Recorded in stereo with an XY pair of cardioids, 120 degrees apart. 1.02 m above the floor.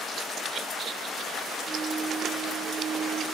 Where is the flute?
45° right, 2.5 m.